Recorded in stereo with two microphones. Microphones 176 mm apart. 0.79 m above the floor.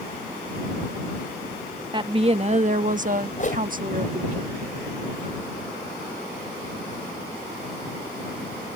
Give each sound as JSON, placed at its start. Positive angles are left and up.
{"t": 1.9, "sound": "a woman speaking", "side_deg": -25}
{"t": 3.4, "sound": "a whoosh", "side_deg": 50}